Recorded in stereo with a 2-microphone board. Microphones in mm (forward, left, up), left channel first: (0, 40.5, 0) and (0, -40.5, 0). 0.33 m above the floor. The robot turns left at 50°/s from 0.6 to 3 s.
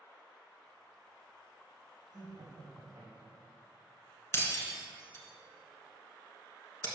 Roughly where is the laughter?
Right.